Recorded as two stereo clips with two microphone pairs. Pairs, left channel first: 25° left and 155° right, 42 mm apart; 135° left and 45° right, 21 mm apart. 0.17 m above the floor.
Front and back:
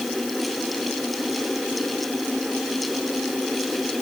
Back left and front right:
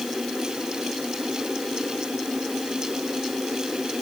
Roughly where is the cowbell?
I don't hear a cowbell.